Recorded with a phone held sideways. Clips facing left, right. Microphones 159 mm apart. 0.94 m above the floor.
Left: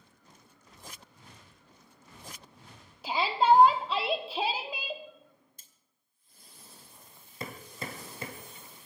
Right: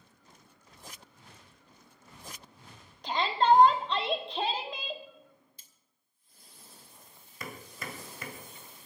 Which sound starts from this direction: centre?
A shout, at 3.0 s.